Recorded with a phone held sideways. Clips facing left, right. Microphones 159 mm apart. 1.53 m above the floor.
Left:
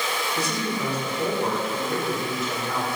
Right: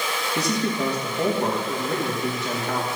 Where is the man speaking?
70° right (ahead or behind), 2.5 m.